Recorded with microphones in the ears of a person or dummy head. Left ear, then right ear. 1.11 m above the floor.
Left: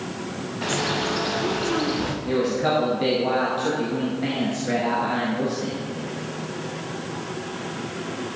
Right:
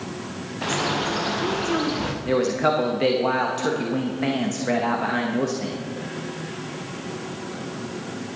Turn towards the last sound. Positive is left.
turn(degrees=-40)  # may be behind; listen again after turning